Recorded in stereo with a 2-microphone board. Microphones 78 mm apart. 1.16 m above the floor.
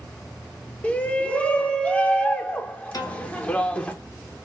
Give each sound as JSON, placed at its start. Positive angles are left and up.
{"t": 0.8, "sound": "a shout", "side_deg": 20, "distance_m": 0.6}
{"t": 2.9, "sound": "a piano", "side_deg": 55, "distance_m": 0.8}